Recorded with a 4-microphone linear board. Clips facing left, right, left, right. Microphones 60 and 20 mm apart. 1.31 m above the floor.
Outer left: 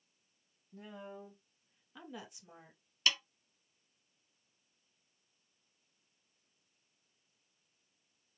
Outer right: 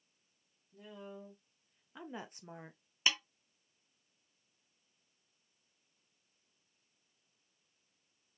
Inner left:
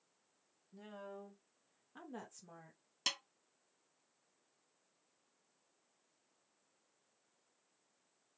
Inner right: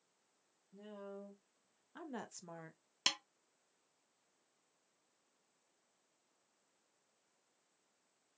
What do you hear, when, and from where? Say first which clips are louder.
0.7 s a woman speaking: outer left 1 dB, even; 40° left (ahead or behind), 1.0 m; by 2.8 s 60° right (ahead or behind), 0.7 m
3.1 s a snare drum: even, inner right 2 dB; 20° right (ahead or behind), 0.6 m